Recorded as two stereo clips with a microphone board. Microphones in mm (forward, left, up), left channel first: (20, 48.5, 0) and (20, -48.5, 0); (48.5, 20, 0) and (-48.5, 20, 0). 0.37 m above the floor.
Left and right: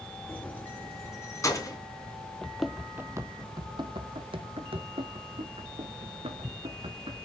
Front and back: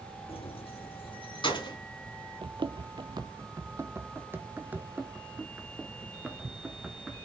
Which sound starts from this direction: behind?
Running footsteps, at 2.4 s.